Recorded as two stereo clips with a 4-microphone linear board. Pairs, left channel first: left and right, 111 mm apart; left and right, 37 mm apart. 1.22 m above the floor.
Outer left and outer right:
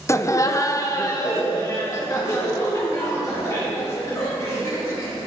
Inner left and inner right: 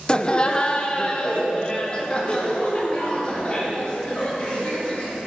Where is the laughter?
25° left (ahead or behind), 0.6 m; by 5.2 s 30° left (ahead or behind), 5.5 m.